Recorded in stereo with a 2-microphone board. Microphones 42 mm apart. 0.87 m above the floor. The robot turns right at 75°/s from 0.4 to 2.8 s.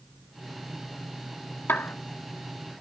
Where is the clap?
70° left (ahead or behind), 1.7 m.